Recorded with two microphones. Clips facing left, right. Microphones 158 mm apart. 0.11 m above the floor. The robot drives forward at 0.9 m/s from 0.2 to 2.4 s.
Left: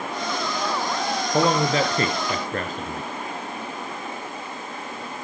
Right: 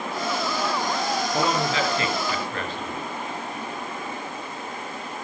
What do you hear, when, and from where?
1.3 s a man speaking: 35° left (ahead or behind), 1.7 m; by 3.1 s 40° left (ahead or behind), 1.4 m